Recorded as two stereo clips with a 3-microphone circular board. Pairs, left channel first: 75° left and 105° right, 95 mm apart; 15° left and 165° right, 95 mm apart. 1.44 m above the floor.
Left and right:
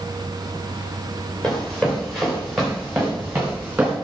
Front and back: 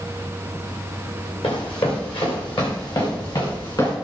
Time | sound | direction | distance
1.4 | running footsteps | 5° right | 6.5 m